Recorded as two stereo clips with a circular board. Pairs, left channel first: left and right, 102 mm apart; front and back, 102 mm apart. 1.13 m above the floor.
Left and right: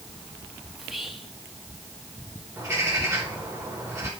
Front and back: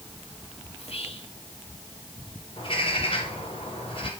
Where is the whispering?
Straight ahead, 2.5 m.